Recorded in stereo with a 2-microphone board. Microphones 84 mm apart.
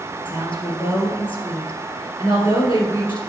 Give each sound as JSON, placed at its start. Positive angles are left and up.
{"t": 0.2, "sound": "a woman speaking", "side_deg": 65, "distance_m": 3.0}